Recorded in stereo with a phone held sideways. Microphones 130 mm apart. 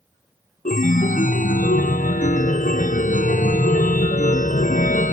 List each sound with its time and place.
0.7 s a chime: 80° left